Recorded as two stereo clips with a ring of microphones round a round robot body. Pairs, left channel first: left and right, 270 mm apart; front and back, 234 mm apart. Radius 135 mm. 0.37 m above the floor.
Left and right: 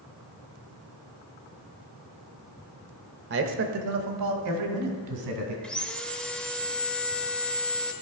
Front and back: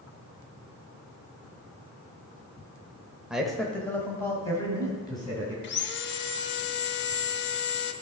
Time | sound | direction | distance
3.3 | a man speaking | 95° right | 1.0 m
5.6 | sawing | 5° left | 0.7 m